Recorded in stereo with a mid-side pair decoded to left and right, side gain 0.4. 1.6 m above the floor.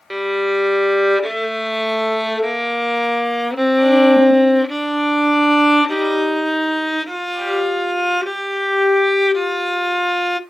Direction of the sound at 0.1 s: 5° right.